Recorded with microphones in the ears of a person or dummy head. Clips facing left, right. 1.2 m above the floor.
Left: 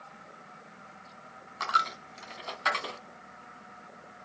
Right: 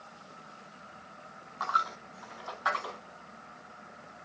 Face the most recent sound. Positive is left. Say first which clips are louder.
# left 1 dB
turn(degrees=35)  # may be behind; listen again after turning